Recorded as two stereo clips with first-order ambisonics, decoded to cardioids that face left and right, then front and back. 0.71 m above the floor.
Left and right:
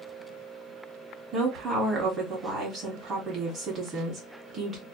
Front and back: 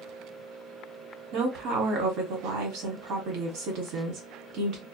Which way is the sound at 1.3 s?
155° right.